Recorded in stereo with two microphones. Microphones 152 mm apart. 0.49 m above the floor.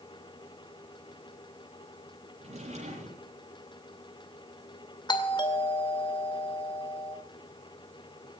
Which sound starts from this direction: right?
A drawer, at 2.4 s.